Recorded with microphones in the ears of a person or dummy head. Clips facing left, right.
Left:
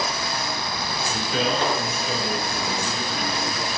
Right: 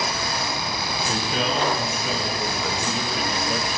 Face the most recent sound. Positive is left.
turn(degrees=-45)  # may be behind; listen again after turning